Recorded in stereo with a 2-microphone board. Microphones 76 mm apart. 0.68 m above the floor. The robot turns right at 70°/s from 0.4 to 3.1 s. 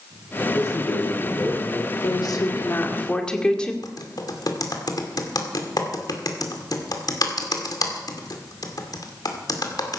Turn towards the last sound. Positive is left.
turn(degrees=60)  # may be behind; listen again after turning